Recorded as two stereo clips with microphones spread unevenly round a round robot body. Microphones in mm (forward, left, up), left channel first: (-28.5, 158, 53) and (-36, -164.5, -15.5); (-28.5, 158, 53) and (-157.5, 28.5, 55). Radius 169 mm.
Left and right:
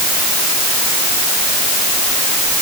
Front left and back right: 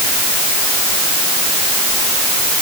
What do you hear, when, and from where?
Only background noise.